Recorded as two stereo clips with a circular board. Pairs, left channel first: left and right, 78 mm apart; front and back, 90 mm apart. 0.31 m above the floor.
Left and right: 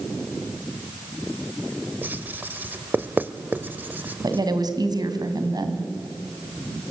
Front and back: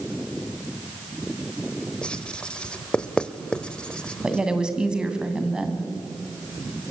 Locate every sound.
2.0 s writing: 65° right, 1.0 m
4.2 s a woman speaking: 100° right, 3 m